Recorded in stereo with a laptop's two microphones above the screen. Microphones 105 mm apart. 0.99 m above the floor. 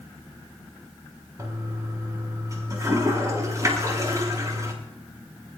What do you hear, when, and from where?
1.4 s a toilet flushing: 30° right (ahead or behind), 6.5 m